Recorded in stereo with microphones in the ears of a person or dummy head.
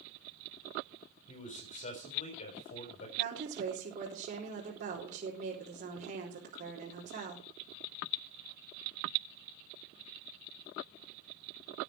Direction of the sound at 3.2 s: 45° right (ahead or behind).